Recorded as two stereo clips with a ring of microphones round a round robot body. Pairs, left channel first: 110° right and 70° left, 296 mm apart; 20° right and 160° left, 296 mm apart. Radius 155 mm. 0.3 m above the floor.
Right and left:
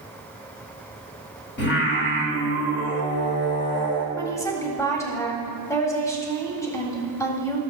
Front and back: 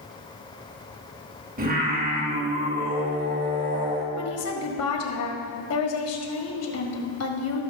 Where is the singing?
150° right, 2 m.